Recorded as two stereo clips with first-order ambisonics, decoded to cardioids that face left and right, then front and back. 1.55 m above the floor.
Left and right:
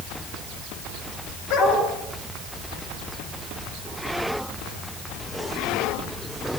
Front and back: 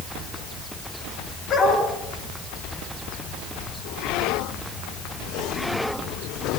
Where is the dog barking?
70° left, 9 m.